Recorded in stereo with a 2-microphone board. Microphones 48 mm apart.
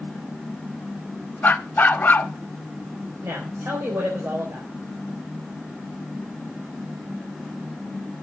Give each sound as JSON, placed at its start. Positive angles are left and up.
{"t": 1.4, "sound": "a dog barking", "side_deg": 40, "distance_m": 0.6}
{"t": 3.2, "sound": "a woman speaking", "side_deg": -80, "distance_m": 3.5}